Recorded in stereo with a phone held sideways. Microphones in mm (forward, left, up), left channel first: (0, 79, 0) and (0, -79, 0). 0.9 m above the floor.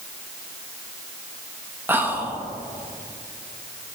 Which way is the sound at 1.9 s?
10° right (ahead or behind).